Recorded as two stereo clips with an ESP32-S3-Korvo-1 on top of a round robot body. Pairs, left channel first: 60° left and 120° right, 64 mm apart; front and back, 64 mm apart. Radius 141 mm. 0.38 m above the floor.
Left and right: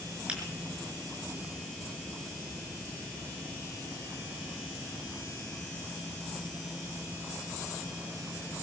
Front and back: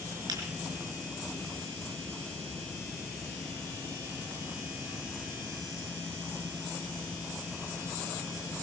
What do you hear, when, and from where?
0.3 s a finger snap: 170° left, 5 m